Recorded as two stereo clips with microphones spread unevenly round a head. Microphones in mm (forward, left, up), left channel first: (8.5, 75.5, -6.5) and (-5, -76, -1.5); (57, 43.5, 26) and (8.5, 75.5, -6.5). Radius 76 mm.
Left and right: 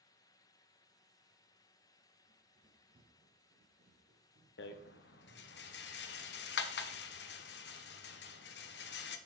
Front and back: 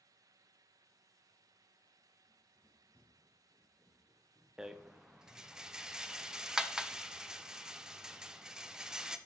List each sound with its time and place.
2.3 s running footsteps: 35° right, 2 m; by 5.6 s 90° right, 3 m
4.6 s a rattle: 80° left, 0.7 m